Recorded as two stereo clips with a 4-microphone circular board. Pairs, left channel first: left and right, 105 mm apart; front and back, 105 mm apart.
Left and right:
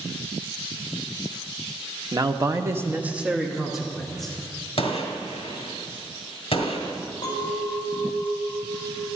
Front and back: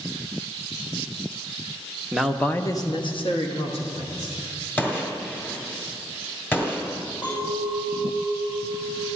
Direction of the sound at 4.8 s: 70° left.